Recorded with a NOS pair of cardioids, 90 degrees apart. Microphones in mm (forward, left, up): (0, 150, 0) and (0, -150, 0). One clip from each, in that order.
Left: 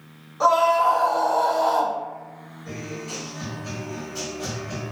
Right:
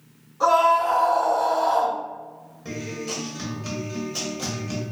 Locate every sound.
0.4 s a scream: 35° left, 1.5 m; by 2.0 s 55° left, 0.6 m
2.6 s a guitar: 60° right, 1.0 m